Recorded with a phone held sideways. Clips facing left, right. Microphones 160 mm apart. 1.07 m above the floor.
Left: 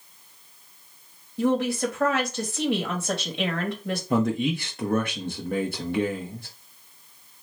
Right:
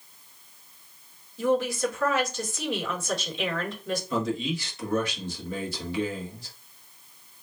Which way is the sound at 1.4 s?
65° left (ahead or behind).